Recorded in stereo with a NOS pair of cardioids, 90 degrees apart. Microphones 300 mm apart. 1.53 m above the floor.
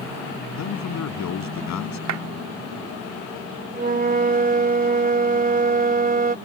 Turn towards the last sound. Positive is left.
turn(degrees=-30)